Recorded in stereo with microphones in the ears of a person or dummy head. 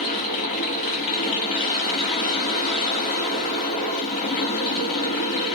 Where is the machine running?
40° left (ahead or behind), 1.8 m.